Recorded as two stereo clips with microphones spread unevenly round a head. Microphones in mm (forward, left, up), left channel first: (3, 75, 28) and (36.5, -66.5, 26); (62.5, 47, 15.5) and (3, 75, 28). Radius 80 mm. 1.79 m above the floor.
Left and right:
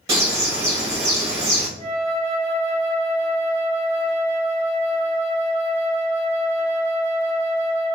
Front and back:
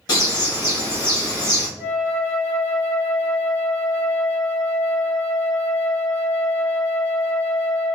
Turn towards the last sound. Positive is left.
turn(degrees=170)